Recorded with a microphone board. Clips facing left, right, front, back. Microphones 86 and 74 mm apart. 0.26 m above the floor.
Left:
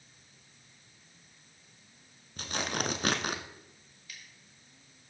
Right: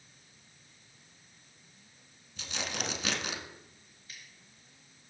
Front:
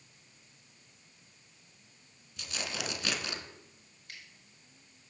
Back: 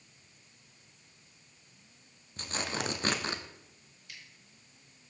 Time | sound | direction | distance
2.4 | tearing paper | 130° left | 0.6 m
4.1 | scissors | 35° right | 2.5 m